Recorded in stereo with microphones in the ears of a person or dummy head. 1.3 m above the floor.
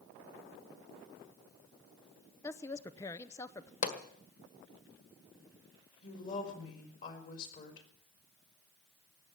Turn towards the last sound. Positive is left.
turn(degrees=45)  # may be behind; listen again after turning